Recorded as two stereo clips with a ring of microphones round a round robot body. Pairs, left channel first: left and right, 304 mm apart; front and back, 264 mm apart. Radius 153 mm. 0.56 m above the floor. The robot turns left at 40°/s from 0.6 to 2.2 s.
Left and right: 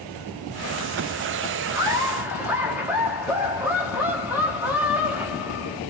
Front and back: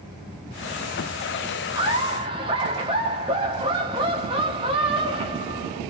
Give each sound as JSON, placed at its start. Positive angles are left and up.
{"t": 1.8, "sound": "laughter", "azimuth_deg": -145, "distance_m": 1.1}